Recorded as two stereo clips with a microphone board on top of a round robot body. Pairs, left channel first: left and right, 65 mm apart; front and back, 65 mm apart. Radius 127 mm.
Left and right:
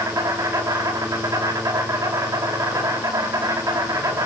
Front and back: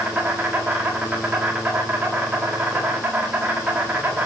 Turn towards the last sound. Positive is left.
turn(degrees=-105)